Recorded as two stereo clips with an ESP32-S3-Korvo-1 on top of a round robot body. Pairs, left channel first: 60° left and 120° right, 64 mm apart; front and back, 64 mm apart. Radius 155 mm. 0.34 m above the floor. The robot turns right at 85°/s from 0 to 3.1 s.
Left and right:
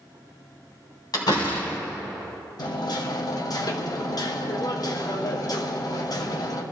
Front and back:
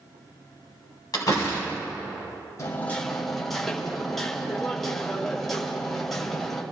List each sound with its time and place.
1.1 s a door slam: 30° left, 2.5 m; by 1.8 s 85° left, 2.5 m
2.6 s hammering: 45° left, 1.6 m; by 6.6 s 85° left, 1.6 m